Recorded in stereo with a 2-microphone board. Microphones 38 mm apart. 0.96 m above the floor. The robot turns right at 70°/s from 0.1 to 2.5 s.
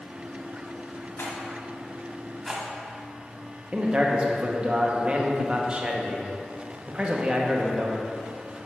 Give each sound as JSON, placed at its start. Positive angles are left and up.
{"t": 1.2, "sound": "a rattle", "side_deg": 70, "distance_m": 1.1}
{"t": 3.7, "sound": "a man speaking", "side_deg": -25, "distance_m": 0.7}